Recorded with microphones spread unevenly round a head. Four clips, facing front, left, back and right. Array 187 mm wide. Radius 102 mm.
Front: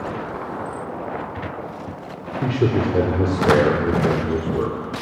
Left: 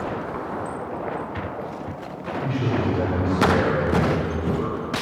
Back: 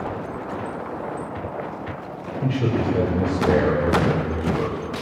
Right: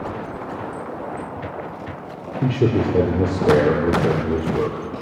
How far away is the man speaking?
About 5 m.